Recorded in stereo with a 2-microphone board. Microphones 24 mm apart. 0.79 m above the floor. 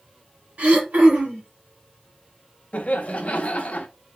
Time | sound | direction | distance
0.6 | throat clearing | 80° right | 2.5 m
2.7 | laughter | 60° left (ahead or behind) | 0.9 m